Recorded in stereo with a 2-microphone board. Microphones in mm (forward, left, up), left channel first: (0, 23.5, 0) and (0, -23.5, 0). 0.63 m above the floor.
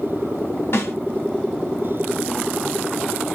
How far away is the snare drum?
About 1.1 m.